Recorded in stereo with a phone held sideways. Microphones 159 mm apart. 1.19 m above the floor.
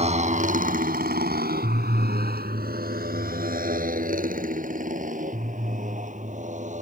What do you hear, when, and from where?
0.0 s a motorcycle: 45° right (ahead or behind); by 6.8 s 50° right (ahead or behind)